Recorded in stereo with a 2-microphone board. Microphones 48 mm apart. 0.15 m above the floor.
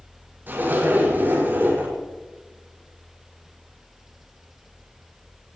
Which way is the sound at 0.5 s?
45° right (ahead or behind).